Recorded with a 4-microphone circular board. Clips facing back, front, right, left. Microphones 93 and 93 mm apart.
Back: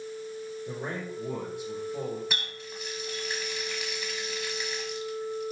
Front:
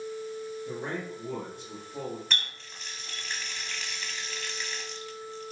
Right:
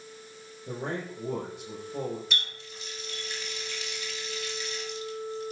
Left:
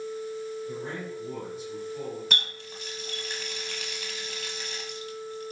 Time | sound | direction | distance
0.7 | a man speaking | 105° right | 5.5 m
2.3 | a running tap | 100° left | 1.3 m